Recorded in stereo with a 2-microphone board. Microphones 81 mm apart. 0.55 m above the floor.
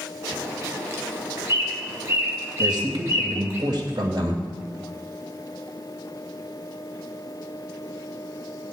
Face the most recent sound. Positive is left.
turn(degrees=-65)  # may be behind; listen again after turning